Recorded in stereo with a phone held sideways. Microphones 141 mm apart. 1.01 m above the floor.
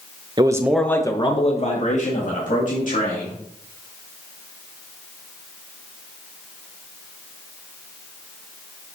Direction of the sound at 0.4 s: 30° right (ahead or behind).